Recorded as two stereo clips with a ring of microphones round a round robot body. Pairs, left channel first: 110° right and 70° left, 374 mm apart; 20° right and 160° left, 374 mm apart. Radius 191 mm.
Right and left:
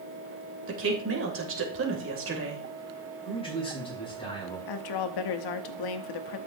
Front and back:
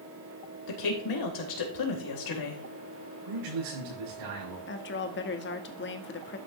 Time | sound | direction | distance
0.7 | a woman speaking | 10° left | 3.5 m
3.2 | a man speaking | 170° left | 6.5 m
4.7 | a woman speaking | 85° right | 1.1 m